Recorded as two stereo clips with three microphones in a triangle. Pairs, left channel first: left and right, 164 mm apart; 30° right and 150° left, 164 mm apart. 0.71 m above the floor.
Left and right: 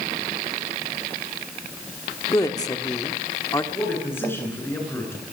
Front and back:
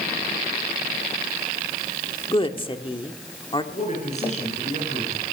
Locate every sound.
2.3 s a woman speaking: 25° left, 1.5 m
3.7 s a man speaking: 15° left, 9.5 m